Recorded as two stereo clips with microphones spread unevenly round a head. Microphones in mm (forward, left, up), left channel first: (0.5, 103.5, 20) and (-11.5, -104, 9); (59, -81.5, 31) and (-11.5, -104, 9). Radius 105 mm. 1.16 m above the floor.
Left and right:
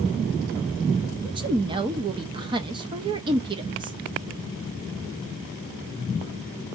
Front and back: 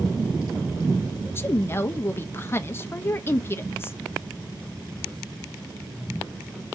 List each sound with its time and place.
1.2 s a woman speaking: 45° right, 0.7 m